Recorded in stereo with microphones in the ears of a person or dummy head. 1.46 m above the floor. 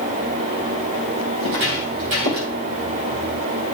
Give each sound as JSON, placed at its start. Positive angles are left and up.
{"t": 1.4, "sound": "footsteps", "side_deg": -60, "distance_m": 3.0}